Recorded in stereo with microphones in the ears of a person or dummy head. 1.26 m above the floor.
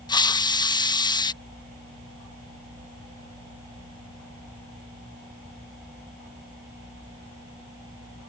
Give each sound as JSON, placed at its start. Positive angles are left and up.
{"t": 0.1, "sound": "a hiss", "side_deg": 20}